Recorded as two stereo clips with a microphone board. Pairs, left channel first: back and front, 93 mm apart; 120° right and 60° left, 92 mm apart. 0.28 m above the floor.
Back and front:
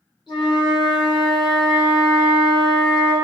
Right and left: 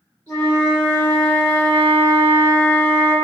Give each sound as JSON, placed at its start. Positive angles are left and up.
{"t": 0.3, "sound": "a flute", "azimuth_deg": 165, "distance_m": 1.3}